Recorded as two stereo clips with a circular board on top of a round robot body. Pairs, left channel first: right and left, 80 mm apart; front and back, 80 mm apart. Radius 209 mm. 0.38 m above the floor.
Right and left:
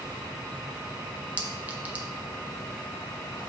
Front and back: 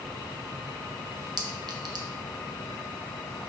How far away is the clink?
About 1.1 m.